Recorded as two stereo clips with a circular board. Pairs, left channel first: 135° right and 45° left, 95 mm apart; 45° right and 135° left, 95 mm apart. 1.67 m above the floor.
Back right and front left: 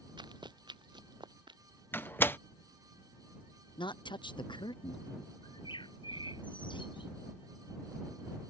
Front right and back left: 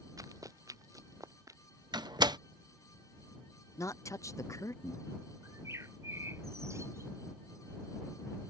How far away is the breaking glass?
No breaking glass in this recording.